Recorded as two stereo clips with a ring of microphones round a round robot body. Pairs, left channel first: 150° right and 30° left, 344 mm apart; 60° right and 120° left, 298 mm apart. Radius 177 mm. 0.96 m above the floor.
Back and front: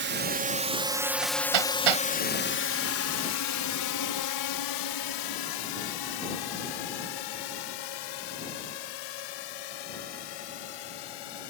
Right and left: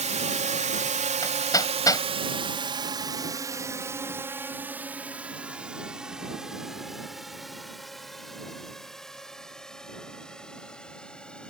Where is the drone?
65° left; by 11.5 s 145° right.